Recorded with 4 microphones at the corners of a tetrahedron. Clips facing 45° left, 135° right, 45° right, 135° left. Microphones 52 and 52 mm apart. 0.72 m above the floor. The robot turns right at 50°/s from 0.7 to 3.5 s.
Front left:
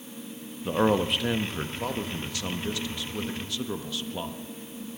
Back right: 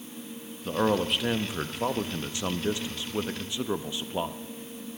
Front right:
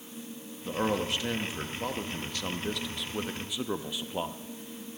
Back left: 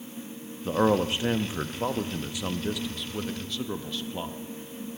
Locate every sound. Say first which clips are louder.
0.7 s a man speaking: front left 2 dB, back left 6 dB; 115° left, 0.6 m; by 4.4 s 105° right, 0.6 m